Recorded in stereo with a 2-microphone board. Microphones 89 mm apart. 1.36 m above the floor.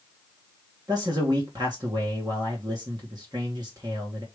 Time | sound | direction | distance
0.9 | a man speaking | 45° right (ahead or behind) | 1.6 m